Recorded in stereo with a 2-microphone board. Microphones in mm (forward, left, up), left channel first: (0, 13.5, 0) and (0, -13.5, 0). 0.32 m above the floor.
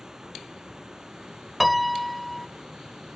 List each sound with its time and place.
0.0 s running water: 25° right (ahead or behind)
1.6 s a piano: centre (ahead or behind)